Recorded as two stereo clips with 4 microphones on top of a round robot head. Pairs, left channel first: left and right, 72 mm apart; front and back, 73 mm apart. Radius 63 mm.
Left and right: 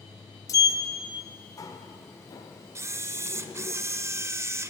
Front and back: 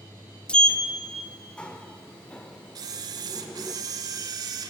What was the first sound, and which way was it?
A sliding door, 75° left.